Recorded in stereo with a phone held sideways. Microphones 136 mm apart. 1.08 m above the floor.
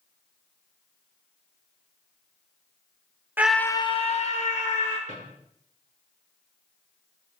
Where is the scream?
15° right (ahead or behind), 0.6 m; by 5.0 s 70° left (ahead or behind), 1.7 m.